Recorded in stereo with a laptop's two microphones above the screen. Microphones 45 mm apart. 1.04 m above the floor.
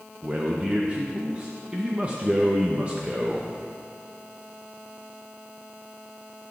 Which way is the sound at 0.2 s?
30° right (ahead or behind).